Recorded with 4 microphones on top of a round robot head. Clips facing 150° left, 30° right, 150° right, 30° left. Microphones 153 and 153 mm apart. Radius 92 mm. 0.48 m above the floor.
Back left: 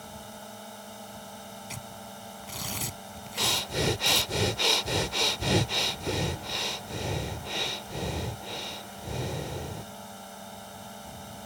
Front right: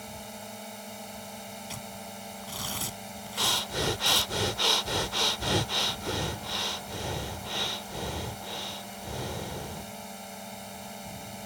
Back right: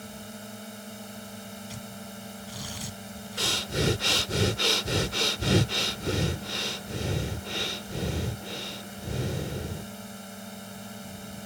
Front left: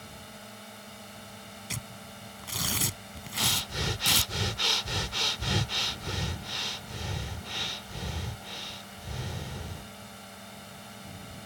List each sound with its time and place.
0.0 s a drone: 110° right
1.7 s tearing paper: 65° left
3.4 s breathing: 135° right